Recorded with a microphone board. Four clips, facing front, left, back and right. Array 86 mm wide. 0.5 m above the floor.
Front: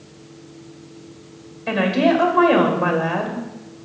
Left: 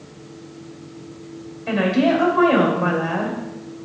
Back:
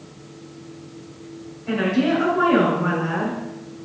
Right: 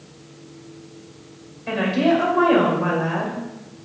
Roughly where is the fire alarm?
No fire alarm in this recording.